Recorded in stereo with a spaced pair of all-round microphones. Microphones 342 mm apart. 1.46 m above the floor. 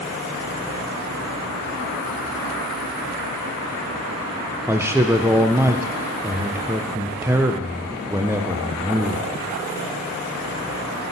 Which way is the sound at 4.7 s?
5° right (ahead or behind).